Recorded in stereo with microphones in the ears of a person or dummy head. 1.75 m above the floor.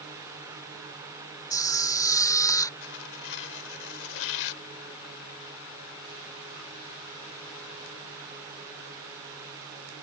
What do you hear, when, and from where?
1.5 s a camera shutter: 15° left (ahead or behind)
2.8 s tearing paper: 70° left (ahead or behind)